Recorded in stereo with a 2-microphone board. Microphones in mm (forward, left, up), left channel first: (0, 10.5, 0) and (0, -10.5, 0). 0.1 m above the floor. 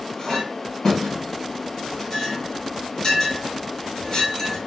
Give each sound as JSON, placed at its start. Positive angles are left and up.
{"t": 0.2, "sound": "a clink", "side_deg": 30, "distance_m": 1.7}